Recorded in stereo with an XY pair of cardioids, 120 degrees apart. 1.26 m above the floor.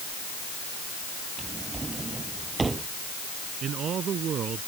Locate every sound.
1.4 s a drawer: 25° right
3.6 s a man speaking: 50° right